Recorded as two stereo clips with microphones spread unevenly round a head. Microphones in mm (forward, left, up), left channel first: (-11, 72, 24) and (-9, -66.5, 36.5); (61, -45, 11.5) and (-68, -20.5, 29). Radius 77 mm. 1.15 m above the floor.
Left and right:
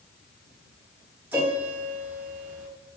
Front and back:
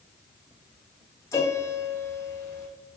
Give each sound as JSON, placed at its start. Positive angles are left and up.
{"t": 1.3, "sound": "a piano", "azimuth_deg": -55, "distance_m": 0.8}